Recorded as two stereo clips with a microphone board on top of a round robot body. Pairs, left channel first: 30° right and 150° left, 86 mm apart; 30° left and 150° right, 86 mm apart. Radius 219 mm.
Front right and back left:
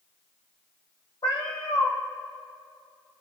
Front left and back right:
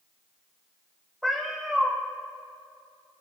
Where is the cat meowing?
65° right, 1.1 m.